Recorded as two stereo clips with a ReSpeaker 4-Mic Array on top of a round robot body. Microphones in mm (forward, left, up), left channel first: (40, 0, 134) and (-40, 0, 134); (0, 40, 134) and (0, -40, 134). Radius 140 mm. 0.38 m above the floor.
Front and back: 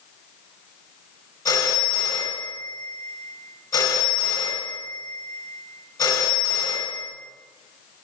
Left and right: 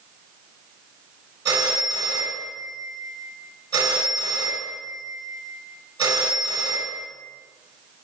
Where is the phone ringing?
50° right, 3 m.